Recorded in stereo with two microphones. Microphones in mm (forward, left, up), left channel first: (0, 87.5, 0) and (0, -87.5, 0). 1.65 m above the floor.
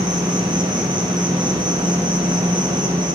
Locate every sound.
0.0 s an insect: 25° right (ahead or behind), 1.0 m